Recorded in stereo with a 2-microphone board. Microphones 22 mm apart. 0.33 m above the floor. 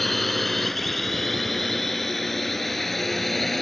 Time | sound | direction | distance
0.0 | a drone | 10° left (ahead or behind) | ?